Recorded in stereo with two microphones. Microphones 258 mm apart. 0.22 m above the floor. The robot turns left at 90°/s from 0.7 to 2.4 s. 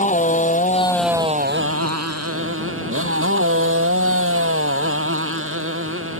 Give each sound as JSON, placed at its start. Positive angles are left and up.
{"t": 0.0, "sound": "a motorcycle", "azimuth_deg": 30}